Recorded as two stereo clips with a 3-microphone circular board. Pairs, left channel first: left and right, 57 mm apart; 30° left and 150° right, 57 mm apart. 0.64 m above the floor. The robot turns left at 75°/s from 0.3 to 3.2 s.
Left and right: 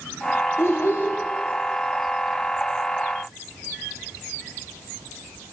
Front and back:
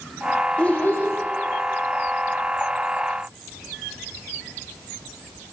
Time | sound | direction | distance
0.6 | a child speaking | 90° left | 0.9 m